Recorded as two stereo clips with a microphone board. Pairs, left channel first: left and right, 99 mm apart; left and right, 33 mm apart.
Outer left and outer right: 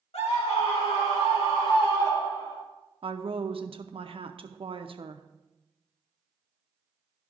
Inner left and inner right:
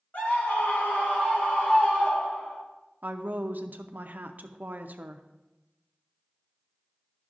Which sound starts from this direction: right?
A woman speaking, at 3.0 s.